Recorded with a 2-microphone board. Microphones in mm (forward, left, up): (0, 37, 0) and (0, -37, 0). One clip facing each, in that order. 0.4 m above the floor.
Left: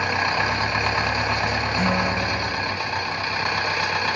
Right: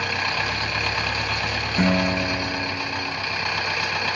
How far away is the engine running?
About 0.9 m.